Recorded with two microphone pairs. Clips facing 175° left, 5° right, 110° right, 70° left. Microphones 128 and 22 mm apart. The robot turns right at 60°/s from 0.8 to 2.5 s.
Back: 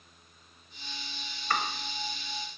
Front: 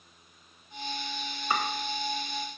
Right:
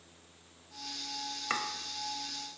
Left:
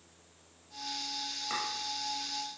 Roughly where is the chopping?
Right.